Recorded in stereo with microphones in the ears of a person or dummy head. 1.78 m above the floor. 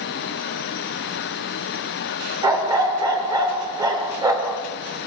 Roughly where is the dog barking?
Right.